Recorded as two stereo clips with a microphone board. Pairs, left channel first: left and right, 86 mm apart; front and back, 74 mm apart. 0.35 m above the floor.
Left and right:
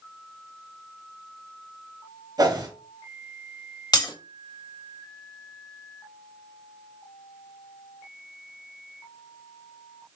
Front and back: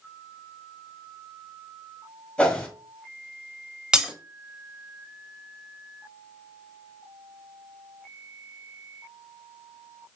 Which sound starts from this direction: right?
A whoosh, at 2.4 s.